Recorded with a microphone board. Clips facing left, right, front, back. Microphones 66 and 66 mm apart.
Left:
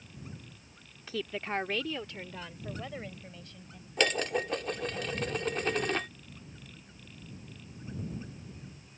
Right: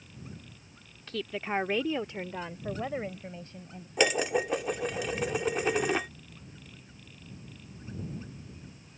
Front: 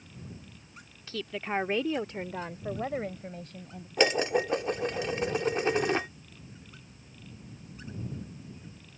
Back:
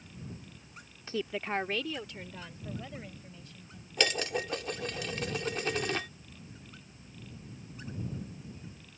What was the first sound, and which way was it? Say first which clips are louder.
A woman speaking: right 2 dB, even; 165° left.